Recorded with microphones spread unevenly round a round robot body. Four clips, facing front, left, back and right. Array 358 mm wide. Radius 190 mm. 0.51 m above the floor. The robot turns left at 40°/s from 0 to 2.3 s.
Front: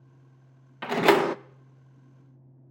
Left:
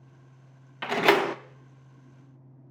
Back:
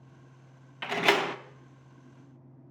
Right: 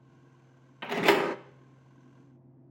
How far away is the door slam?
About 0.5 m.